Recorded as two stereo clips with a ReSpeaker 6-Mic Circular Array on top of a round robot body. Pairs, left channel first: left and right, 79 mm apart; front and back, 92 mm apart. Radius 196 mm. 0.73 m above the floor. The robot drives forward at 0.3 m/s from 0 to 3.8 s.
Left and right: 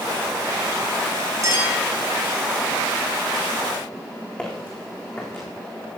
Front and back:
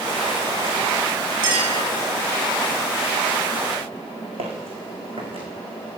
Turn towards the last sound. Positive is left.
turn(degrees=155)